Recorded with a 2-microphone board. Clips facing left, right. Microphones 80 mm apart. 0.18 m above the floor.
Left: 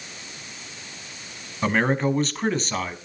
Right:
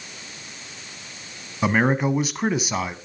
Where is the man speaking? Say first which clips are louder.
Right 1 dB; 10° right (ahead or behind), 1.1 m.